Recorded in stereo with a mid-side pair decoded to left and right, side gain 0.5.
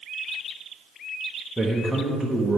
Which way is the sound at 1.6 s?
5° right.